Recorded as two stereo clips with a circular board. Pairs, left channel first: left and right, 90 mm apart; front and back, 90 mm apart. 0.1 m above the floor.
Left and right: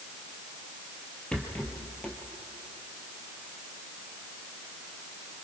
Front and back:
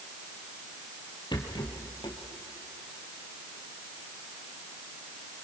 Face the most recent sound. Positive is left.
turn(degrees=15)